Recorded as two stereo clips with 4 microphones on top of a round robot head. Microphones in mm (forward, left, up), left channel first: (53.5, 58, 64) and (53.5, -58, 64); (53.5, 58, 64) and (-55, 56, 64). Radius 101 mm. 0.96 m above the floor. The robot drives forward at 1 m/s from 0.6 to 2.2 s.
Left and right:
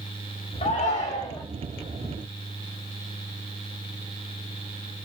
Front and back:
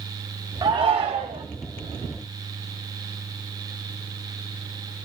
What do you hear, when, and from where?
0.6 s a shout: 125° left, 0.7 m; by 1.4 s 155° left, 1.4 m